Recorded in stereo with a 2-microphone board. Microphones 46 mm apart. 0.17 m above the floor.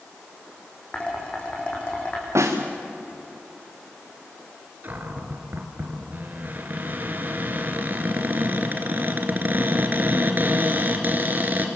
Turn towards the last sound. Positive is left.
turn(degrees=-45)  # may be behind; listen again after turning